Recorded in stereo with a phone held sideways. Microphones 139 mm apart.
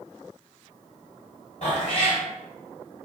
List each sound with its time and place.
1.6 s a cat meowing: 50° left (ahead or behind), 1.2 m